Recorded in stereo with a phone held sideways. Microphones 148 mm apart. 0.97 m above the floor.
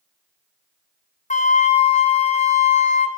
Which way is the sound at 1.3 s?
55° left (ahead or behind).